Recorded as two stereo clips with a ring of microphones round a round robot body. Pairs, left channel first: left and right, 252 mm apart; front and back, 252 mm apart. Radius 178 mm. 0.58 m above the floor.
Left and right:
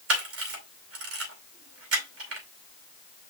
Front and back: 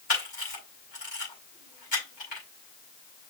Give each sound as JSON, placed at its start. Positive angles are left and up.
{"t": 0.1, "sound": "a camera shutter", "azimuth_deg": -65, "distance_m": 4.0}